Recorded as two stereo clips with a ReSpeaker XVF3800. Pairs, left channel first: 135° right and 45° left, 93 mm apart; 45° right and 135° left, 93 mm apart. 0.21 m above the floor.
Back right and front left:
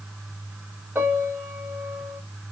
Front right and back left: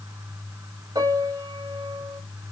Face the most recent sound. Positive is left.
turn(degrees=110)